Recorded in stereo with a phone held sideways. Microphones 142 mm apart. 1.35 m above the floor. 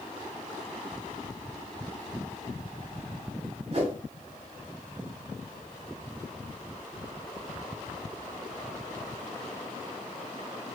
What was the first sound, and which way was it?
A whoosh, 45° right (ahead or behind).